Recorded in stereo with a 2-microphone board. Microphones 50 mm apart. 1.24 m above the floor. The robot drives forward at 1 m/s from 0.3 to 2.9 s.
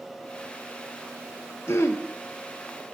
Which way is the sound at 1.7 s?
60° left (ahead or behind).